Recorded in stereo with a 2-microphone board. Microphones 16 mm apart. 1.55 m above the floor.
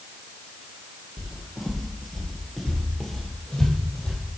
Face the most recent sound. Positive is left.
turn(degrees=55)  # may be behind; listen again after turning